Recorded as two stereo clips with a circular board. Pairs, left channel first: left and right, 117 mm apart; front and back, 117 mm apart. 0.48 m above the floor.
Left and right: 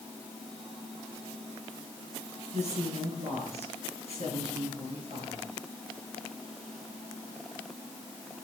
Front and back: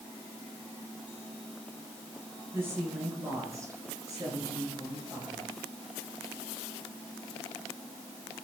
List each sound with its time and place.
2.5 s a woman speaking: 110° right, 7 m; by 5.5 s 125° right, 7 m